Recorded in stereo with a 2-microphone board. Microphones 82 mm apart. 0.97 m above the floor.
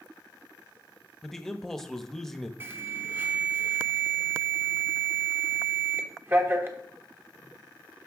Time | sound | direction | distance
1.2 | a man speaking | 5° left (ahead or behind) | 0.9 m
2.6 | an alarm | 25° right (ahead or behind) | 1.1 m